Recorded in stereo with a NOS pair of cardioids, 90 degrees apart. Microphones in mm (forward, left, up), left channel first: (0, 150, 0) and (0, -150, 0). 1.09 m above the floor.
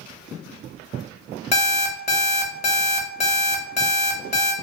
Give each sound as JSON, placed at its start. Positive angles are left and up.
{"t": 1.5, "sound": "an alarm clock", "azimuth_deg": 25, "distance_m": 0.9}